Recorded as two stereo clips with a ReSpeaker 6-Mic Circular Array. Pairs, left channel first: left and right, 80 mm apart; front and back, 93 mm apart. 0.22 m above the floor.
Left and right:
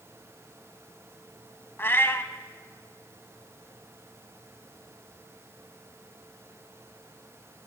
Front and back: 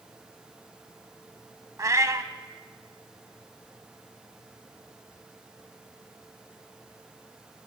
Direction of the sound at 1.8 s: 140° left.